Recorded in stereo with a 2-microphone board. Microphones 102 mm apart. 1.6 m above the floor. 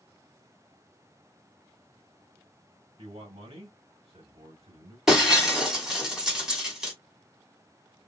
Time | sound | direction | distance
3.0 | a man speaking | 75° right (ahead or behind) | 2 m
5.1 | breaking glass | 5° right (ahead or behind) | 1.7 m